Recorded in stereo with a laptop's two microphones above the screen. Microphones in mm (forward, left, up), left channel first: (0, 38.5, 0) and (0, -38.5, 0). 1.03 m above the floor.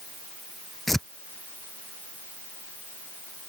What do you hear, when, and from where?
0.9 s tearing paper: 5° left (ahead or behind)